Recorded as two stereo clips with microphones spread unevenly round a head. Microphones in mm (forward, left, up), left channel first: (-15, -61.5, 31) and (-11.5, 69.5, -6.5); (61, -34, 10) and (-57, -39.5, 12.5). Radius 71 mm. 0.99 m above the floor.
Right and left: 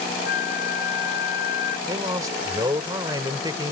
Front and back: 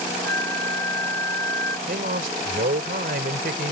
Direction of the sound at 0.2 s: 65° right.